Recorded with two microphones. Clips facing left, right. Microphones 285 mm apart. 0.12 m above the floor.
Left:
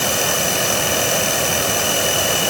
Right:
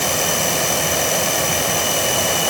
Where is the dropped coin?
No dropped coin in this recording.